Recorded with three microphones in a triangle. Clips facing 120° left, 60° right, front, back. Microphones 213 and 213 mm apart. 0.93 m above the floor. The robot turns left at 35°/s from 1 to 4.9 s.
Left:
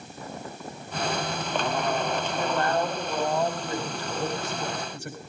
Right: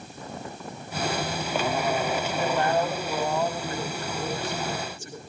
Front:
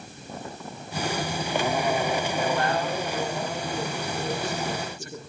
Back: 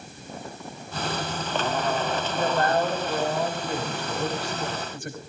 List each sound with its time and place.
2.3 s a woman speaking: 125° right, 5.5 m; by 5.2 s 145° left, 5.5 m